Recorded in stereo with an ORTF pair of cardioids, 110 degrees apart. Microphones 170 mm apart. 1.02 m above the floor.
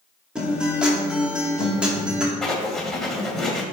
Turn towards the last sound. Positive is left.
turn(degrees=0)